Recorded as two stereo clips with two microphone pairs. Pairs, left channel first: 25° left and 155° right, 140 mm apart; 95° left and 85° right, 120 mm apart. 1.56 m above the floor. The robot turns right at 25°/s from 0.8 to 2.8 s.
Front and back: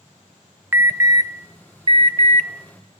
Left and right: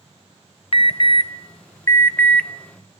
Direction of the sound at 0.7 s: 135° left.